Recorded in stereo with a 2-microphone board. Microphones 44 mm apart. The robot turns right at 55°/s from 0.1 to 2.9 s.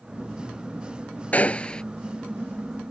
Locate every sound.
1.3 s a gunshot: 35° left (ahead or behind); by 1.8 s 20° left (ahead or behind)